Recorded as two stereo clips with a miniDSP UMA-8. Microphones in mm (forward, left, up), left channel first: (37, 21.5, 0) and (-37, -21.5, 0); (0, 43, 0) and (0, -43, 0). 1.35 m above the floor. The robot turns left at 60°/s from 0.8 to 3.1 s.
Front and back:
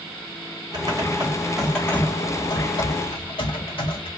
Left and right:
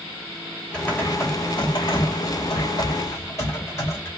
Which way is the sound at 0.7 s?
170° left.